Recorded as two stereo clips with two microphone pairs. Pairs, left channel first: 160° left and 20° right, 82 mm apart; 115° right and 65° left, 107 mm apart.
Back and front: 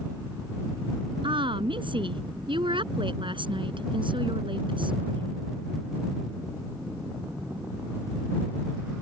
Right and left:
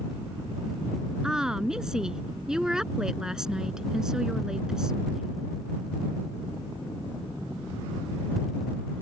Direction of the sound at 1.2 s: 20° right.